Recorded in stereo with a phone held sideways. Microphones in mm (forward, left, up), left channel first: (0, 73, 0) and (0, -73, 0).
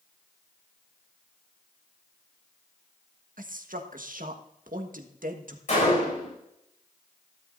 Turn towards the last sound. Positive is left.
turn(degrees=50)  # may be behind; listen again after turning